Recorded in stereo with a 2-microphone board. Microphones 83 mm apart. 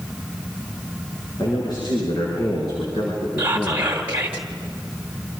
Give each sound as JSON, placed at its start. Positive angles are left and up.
{"t": 1.4, "sound": "a man speaking", "side_deg": 55, "distance_m": 7.0}
{"t": 3.4, "sound": "whispering", "side_deg": -20, "distance_m": 1.1}